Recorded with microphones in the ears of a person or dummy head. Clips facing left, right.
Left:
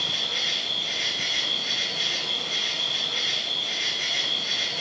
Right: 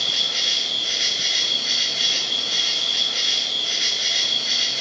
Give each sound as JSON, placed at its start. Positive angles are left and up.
{"t": 0.0, "sound": "an insect", "side_deg": -30, "distance_m": 3.5}